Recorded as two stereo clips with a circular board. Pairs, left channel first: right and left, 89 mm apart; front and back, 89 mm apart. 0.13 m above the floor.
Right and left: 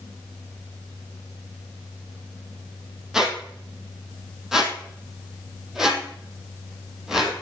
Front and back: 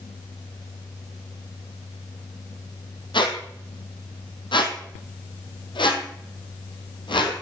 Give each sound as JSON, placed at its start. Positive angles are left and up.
{"t": 3.1, "sound": "a squeak", "azimuth_deg": 5, "distance_m": 2.0}